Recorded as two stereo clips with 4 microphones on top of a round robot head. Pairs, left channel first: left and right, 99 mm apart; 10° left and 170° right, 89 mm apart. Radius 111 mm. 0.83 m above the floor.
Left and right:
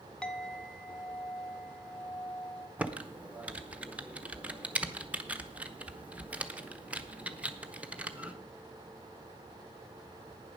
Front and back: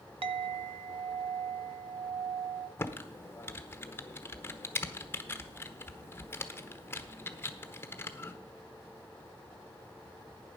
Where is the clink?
175° left, 0.6 m.